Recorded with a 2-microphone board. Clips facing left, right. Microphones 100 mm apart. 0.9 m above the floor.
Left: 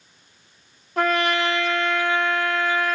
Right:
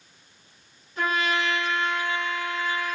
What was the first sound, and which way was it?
A trumpet, 70° left (ahead or behind).